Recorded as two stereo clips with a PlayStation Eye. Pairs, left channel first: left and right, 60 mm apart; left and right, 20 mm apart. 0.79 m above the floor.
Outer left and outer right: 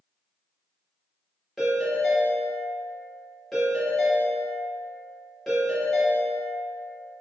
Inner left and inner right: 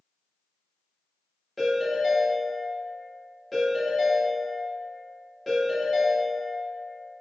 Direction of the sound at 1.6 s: 5° left (ahead or behind).